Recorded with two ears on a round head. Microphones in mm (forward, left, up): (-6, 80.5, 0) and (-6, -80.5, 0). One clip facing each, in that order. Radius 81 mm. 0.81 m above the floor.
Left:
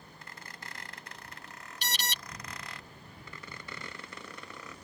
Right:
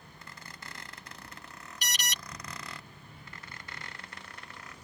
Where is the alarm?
25° left (ahead or behind).